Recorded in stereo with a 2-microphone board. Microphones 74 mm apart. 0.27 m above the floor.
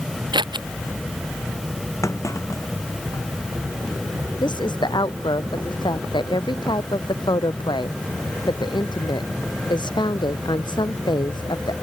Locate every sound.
0.3 s scissors: 80° right
2.0 s a clunk: 40° left (ahead or behind)
4.4 s a woman speaking: 80° left